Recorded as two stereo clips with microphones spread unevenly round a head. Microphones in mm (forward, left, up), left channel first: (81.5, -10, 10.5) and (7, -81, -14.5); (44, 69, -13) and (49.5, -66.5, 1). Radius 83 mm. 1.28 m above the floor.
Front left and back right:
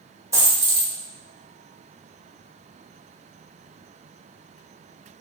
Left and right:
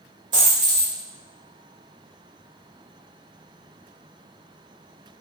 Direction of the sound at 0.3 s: 75° right.